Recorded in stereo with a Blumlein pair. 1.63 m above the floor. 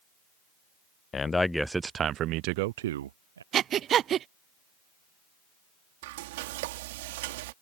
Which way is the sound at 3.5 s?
30° right.